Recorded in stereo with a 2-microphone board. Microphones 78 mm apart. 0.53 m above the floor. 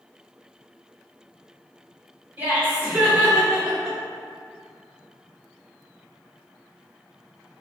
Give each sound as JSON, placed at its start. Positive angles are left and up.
{"t": 2.4, "sound": "laughter", "side_deg": -30, "distance_m": 1.8}